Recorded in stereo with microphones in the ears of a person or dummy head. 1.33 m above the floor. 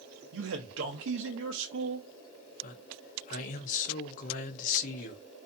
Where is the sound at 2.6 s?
40° left (ahead or behind), 0.6 m.